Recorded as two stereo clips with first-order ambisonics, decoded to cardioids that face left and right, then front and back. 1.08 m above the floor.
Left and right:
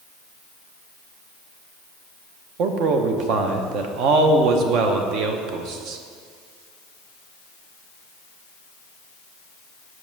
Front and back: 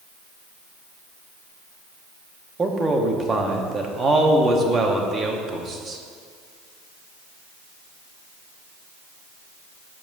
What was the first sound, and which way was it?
A man speaking, 110° right.